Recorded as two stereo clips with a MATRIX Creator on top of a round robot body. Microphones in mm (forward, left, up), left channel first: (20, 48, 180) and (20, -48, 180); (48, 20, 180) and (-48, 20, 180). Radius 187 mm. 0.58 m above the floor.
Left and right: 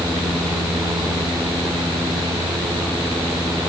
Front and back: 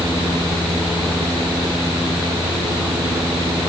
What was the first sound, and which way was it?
Only background noise.